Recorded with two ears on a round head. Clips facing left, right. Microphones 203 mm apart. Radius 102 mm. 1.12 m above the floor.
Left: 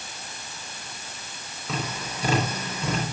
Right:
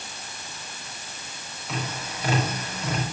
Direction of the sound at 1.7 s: 70° left (ahead or behind).